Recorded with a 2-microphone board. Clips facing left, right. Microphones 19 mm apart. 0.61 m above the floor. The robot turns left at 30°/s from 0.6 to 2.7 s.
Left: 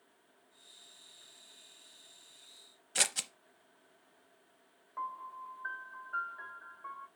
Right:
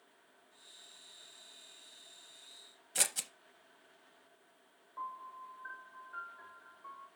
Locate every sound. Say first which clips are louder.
3.0 s scissors: left 3 dB; 20° left (ahead or behind), 0.6 m
5.0 s a piano: left 3 dB; 45° left (ahead or behind), 1.7 m